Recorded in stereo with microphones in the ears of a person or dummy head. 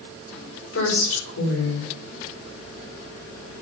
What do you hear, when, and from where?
0.7 s a woman speaking: 85° left, 5 m